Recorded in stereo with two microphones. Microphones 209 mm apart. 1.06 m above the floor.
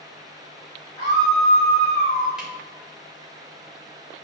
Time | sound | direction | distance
1.0 | a scream | 45° left (ahead or behind) | 2.5 m
2.4 | a camera shutter | 5° right (ahead or behind) | 3.5 m